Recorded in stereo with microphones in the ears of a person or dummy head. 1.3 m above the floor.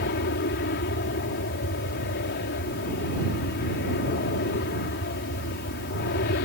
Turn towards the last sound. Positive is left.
turn(degrees=50)  # may be behind; listen again after turning